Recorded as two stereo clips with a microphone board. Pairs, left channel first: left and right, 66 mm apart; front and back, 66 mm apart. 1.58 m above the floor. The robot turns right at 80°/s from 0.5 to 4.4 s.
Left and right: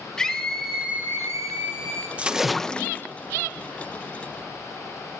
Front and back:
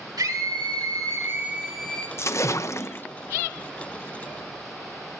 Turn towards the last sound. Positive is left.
turn(degrees=150)